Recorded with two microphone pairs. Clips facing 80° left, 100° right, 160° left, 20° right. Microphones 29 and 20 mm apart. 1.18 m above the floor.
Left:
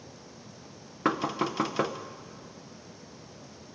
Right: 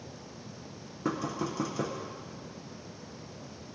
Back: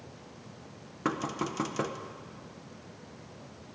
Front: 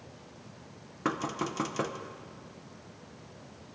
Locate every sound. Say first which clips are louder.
1.1 s knocking: left 5 dB, even; 70° left, 0.5 m